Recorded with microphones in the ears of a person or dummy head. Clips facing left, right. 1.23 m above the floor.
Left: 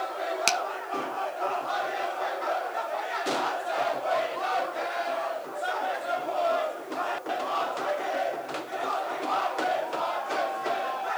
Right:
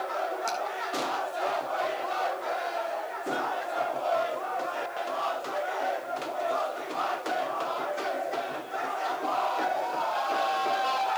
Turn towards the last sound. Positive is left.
turn(degrees=85)